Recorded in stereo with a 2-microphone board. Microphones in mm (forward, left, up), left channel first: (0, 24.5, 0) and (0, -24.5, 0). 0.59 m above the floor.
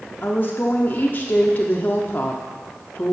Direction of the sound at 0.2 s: 40° left (ahead or behind).